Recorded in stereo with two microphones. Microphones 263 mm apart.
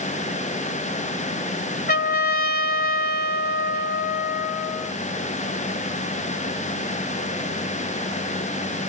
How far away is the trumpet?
About 0.8 m.